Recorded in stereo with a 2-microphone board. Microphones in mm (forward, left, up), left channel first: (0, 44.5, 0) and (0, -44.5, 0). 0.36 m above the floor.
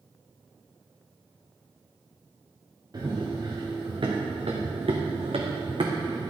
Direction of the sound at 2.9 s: 45° right (ahead or behind).